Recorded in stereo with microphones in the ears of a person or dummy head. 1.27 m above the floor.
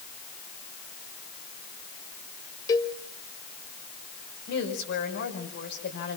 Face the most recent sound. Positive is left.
turn(degrees=55)  # may be behind; listen again after turning